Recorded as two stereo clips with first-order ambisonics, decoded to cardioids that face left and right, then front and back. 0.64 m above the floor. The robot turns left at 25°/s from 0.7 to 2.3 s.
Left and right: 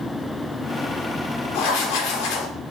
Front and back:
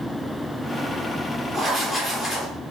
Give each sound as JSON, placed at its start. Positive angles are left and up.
{"t": 1.5, "sound": "writing", "azimuth_deg": 105, "distance_m": 0.9}